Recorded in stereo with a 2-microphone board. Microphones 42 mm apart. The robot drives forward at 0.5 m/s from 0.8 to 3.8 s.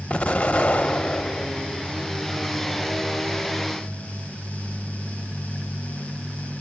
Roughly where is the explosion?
Left.